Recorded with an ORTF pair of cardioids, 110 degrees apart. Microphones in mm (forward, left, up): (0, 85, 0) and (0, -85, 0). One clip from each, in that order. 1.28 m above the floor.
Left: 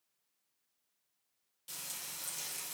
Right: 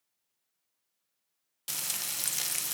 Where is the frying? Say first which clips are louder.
Right 9 dB; 65° right, 0.7 m.